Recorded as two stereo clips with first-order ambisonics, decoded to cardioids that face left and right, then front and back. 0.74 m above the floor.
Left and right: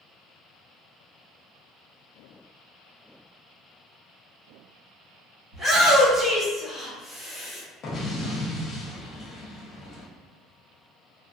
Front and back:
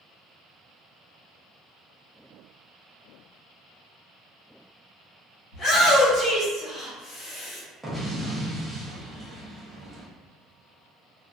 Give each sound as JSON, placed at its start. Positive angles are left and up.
{"t": 5.5, "sound": "a shout", "azimuth_deg": -25, "distance_m": 1.3}
{"t": 7.8, "sound": "an explosion", "azimuth_deg": 105, "distance_m": 0.5}